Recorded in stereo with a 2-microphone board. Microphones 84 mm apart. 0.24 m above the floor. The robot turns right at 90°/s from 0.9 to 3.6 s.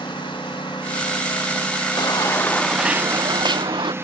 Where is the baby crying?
110° left; by 3.9 s 105° right.